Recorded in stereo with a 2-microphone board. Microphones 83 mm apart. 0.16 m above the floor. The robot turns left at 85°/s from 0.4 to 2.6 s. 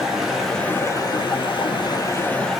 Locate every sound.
0.0 s running water: 175° right, 0.8 m; by 2.6 s straight ahead, 0.8 m